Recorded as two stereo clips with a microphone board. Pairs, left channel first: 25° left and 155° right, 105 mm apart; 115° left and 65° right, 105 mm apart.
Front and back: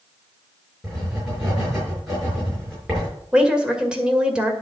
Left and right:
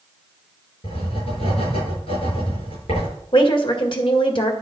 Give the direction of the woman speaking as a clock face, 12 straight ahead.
8 o'clock.